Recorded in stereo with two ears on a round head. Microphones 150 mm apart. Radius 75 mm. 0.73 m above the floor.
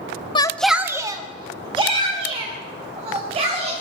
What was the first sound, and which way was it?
A shout, 30° left (ahead or behind).